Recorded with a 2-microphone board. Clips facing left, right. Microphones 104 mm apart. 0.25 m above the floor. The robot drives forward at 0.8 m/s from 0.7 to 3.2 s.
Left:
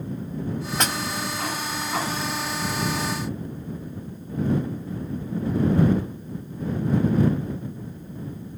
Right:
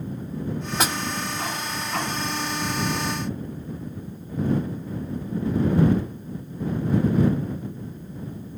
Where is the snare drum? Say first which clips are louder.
Right 2 dB; 5° right (ahead or behind), 1.3 m.